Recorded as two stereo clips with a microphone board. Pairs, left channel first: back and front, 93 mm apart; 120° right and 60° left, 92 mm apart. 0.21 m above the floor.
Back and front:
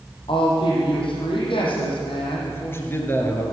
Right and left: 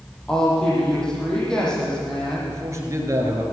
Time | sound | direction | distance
0.3 | a woman speaking | 155° left | 7 m
2.5 | a man speaking | 115° left | 4.5 m